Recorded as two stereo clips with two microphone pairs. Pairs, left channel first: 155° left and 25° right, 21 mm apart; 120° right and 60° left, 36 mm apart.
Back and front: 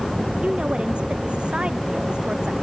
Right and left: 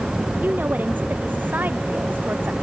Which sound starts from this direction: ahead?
A woman speaking, at 0.4 s.